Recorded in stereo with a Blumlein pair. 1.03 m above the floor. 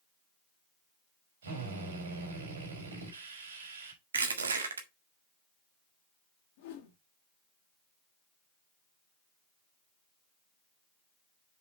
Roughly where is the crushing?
Right.